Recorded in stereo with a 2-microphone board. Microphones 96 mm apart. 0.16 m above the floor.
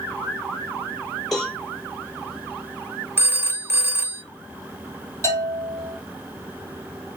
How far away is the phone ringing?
About 0.7 m.